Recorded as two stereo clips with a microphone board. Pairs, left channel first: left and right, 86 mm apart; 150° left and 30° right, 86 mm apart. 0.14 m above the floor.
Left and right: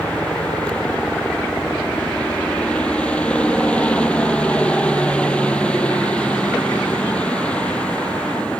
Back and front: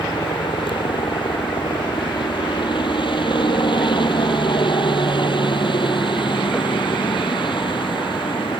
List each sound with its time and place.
0.0 s a helicopter: 165° left